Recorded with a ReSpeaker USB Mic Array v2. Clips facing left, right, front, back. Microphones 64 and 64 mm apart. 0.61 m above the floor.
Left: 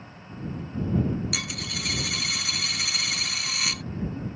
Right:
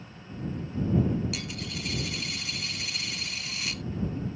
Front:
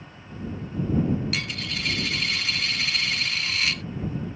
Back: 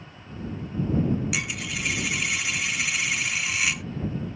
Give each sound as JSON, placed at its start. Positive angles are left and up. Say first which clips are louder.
{"t": 1.3, "sound": "a dropped coin", "louder": "left 3 dB, back 1 dB", "azimuth_deg": 100}